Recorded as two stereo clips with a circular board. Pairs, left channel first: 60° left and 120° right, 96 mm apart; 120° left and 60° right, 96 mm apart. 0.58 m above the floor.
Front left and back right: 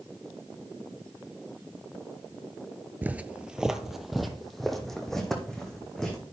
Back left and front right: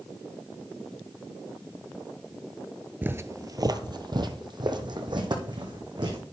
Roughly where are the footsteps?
Right.